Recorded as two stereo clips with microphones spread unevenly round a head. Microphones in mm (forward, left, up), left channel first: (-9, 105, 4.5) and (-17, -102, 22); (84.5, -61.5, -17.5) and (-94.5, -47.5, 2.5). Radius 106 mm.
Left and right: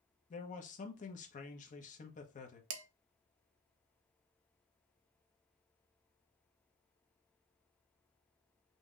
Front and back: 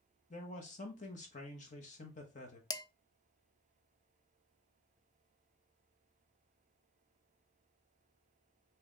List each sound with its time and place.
0.3 s a man speaking: 40° left, 1.0 m
2.7 s dishes clattering: 75° right, 0.6 m